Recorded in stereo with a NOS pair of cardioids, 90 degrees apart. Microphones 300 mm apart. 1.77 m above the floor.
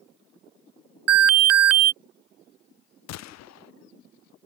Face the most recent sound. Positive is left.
turn(degrees=60)